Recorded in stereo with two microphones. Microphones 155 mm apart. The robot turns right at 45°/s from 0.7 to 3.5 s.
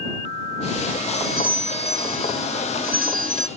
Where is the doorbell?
160° right; by 3.5 s 55° right.